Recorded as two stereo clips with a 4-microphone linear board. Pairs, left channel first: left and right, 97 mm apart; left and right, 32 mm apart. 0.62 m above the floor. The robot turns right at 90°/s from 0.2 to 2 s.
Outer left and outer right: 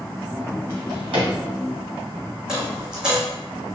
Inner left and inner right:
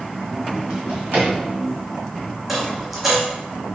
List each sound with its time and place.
0.7 s a drawer: 30° right (ahead or behind), 1.6 m; by 1.3 s 85° right, 1.6 m
2.5 s a dropped coin: 10° right (ahead or behind), 1.3 m